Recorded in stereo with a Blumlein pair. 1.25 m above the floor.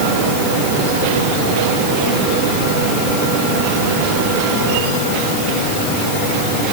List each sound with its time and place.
Only background noise.